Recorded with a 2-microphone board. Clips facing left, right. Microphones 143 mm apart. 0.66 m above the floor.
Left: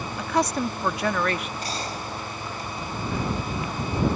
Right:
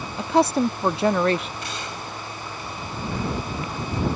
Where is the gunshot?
40° left (ahead or behind).